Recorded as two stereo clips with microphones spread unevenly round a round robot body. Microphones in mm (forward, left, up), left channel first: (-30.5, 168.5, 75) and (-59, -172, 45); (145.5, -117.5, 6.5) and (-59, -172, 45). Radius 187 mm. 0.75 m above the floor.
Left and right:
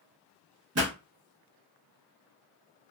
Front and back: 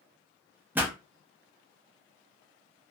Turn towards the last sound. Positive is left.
turn(degrees=-75)